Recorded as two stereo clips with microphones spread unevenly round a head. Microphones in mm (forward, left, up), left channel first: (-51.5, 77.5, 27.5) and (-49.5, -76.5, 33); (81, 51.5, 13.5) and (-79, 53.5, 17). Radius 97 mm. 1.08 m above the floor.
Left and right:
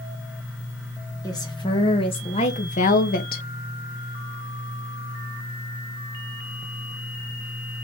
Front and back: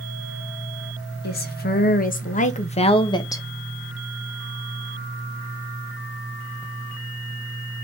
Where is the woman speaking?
20° left, 1.7 m; by 3.4 s 70° left, 1.0 m.